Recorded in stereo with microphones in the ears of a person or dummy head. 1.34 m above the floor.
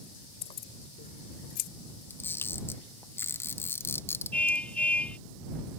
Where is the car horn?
10° left (ahead or behind).